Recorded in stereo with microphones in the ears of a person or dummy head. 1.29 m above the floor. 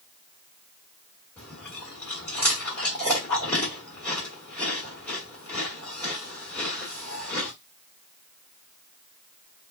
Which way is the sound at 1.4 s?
10° left (ahead or behind).